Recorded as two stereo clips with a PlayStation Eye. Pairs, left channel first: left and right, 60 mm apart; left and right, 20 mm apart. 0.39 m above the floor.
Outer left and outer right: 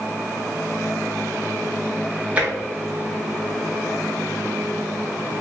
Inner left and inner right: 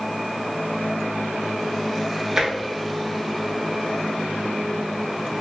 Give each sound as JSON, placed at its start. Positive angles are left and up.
{"t": 2.4, "sound": "tapping", "side_deg": -20, "distance_m": 0.9}